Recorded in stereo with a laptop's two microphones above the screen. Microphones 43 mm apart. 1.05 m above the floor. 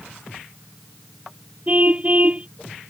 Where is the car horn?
30° right (ahead or behind).